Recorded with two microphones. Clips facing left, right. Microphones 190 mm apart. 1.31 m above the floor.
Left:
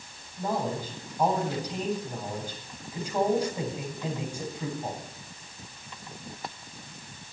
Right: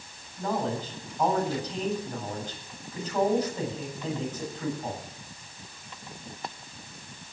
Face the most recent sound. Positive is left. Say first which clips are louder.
# right 1 dB
turn(degrees=10)  # may be behind; listen again after turning